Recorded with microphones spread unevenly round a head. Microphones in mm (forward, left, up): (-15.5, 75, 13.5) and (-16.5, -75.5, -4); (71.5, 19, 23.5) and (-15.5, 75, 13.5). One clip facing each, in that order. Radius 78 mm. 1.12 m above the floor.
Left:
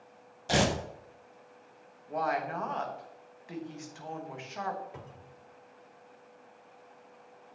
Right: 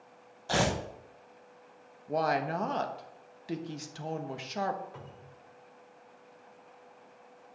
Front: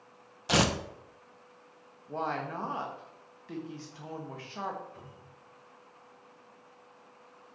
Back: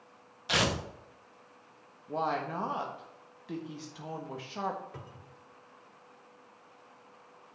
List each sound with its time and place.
0.5 s tearing paper: 15° left, 1.1 m
2.1 s a woman speaking: 135° right, 1.2 m
4.9 s a cupboard door: 160° left, 1.5 m